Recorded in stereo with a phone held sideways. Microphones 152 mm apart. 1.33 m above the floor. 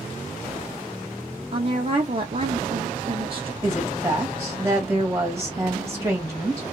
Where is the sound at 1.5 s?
40° right (ahead or behind), 0.8 m.